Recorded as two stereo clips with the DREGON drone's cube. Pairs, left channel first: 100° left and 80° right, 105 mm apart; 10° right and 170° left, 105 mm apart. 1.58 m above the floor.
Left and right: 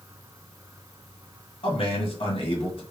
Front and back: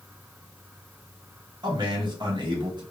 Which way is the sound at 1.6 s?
125° left.